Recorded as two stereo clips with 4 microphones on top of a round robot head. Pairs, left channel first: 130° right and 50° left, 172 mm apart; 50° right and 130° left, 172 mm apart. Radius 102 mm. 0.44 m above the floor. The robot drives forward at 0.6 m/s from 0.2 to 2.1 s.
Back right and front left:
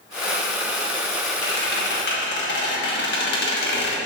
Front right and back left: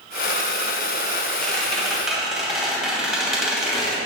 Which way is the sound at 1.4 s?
130° right.